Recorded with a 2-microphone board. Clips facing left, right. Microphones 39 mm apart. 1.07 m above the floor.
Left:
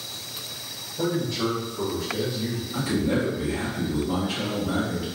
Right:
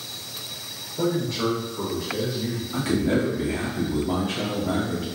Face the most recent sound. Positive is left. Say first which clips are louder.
# right 2 dB
turn(degrees=-85)